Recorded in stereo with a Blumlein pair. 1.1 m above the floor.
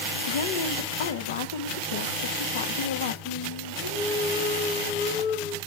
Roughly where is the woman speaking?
Ahead left.